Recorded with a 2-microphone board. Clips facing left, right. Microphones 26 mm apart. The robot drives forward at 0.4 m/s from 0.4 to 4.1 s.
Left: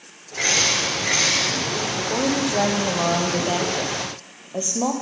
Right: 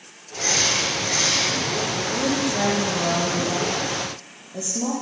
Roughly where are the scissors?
No scissors in this recording.